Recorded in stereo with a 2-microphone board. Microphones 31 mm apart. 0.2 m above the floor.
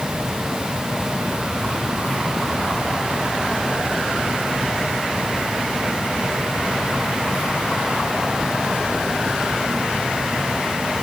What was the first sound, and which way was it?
Only background noise.